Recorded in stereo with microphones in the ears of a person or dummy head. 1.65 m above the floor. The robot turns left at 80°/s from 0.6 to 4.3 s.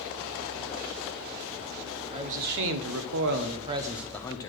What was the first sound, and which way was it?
A man speaking, 25° right.